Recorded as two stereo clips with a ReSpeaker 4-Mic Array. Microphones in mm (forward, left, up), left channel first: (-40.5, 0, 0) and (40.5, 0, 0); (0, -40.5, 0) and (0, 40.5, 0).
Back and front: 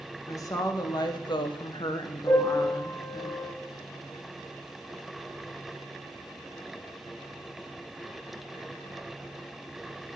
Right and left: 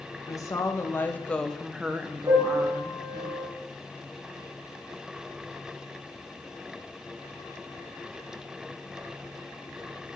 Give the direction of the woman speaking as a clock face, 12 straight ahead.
4 o'clock.